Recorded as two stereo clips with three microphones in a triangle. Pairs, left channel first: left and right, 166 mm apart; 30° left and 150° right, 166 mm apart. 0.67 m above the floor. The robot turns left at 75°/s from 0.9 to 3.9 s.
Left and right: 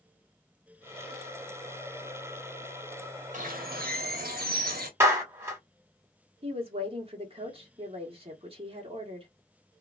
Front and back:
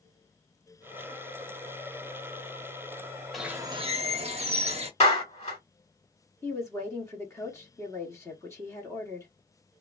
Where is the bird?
60° right, 0.7 m; by 4.9 s 100° right, 0.7 m.